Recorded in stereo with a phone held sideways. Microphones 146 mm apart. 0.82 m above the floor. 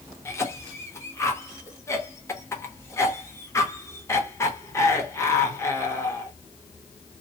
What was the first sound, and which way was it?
A cough, 20° left (ahead or behind).